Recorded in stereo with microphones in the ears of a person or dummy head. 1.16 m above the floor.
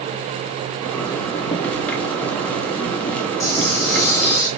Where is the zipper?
10° left (ahead or behind), 0.6 m.